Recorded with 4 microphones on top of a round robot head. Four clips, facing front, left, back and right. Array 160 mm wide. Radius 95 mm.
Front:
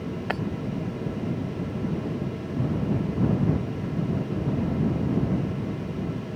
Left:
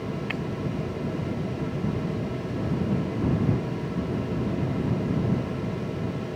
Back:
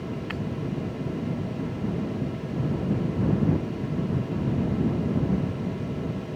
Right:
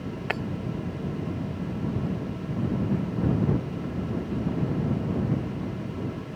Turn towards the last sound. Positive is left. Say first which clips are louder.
# right 2 dB, front 4 dB
turn(degrees=-35)